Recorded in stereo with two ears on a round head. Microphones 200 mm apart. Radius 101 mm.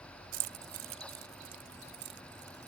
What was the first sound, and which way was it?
Keys jangling, 70° right (ahead or behind).